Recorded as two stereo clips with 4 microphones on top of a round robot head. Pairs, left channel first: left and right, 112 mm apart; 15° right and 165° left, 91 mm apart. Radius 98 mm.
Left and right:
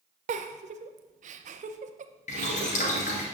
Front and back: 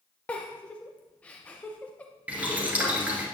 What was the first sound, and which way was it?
A giggle, 95° right.